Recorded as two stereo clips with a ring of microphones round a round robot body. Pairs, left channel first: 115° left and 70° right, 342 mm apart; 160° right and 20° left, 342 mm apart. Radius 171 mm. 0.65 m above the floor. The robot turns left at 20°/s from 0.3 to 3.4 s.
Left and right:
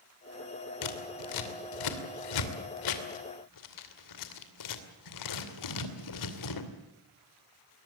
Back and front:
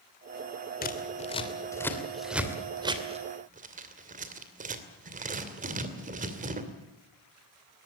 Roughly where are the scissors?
Behind left.